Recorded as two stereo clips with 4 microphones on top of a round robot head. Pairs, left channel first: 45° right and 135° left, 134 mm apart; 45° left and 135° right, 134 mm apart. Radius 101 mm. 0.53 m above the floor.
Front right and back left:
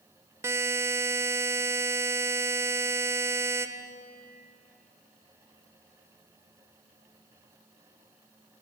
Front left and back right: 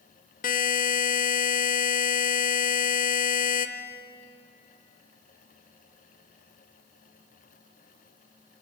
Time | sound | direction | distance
0.4 | a buzzer | 65° left | 0.8 m